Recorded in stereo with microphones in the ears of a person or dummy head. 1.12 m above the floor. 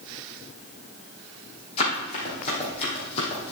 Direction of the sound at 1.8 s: 35° left (ahead or behind).